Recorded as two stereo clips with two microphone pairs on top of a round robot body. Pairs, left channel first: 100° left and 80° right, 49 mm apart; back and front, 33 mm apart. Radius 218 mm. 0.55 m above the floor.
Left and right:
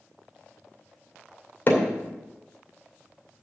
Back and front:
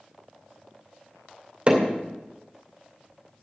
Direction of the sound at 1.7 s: 50° left.